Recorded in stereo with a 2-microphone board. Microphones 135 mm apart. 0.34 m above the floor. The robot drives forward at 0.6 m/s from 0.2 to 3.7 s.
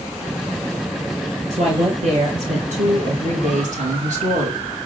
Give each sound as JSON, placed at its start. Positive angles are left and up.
{"t": 1.5, "sound": "a woman speaking", "side_deg": -65, "distance_m": 6.0}